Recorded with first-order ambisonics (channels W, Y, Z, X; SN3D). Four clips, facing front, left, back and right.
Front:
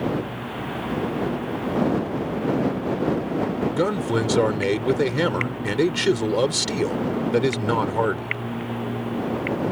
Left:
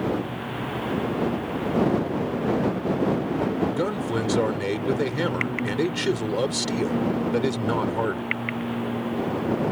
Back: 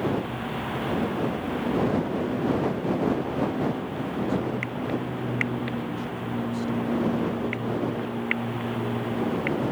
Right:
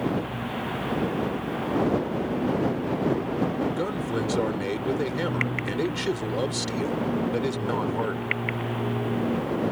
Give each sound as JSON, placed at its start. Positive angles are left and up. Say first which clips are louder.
{"t": 3.7, "sound": "a man speaking", "louder": "left 2 dB, front 8 dB", "azimuth_deg": 10}